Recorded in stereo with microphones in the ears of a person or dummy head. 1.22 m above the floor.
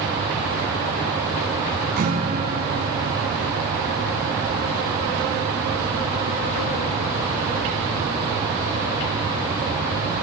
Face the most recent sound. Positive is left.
turn(degrees=-50)  # may be behind; listen again after turning